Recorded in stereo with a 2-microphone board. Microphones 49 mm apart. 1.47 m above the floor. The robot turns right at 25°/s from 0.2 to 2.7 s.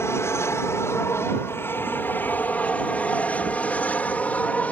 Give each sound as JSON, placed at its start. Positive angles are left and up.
{"t": 0.0, "sound": "an aircraft", "side_deg": 60}